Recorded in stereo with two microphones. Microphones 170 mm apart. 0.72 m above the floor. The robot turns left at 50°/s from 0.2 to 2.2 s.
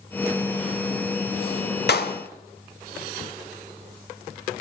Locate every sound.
1.9 s a clap: 75° left (ahead or behind), 2 m